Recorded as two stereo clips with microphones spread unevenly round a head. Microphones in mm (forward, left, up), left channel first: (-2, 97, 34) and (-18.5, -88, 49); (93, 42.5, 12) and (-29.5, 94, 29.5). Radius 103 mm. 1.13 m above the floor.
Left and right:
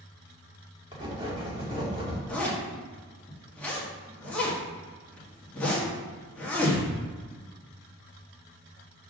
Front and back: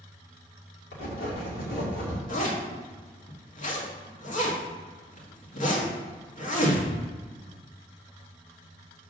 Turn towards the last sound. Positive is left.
turn(degrees=0)